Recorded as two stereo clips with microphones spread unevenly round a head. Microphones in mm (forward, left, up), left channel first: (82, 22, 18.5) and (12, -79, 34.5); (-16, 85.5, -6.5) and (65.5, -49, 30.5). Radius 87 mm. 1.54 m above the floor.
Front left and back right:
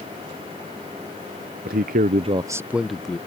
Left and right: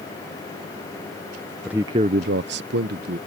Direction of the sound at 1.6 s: 140° right.